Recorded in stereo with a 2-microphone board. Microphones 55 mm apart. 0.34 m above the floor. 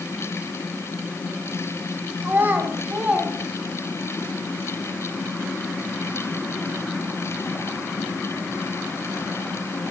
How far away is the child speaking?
About 2.5 m.